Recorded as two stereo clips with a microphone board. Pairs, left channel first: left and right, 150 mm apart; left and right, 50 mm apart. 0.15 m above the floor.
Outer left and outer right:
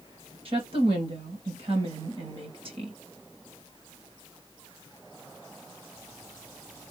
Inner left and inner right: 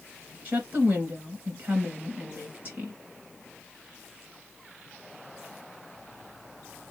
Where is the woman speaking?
40° right (ahead or behind), 2 m.